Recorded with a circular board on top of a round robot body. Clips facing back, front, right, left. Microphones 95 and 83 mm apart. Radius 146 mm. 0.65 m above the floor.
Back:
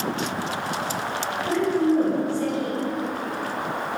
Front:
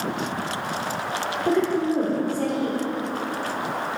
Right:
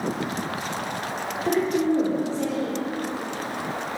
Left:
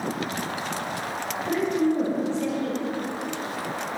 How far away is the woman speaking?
About 2 m.